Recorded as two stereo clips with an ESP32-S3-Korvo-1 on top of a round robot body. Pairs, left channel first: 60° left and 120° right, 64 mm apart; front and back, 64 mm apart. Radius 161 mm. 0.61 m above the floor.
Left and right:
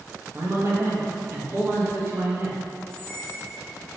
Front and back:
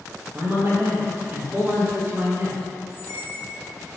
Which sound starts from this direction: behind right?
A man speaking, at 0.3 s.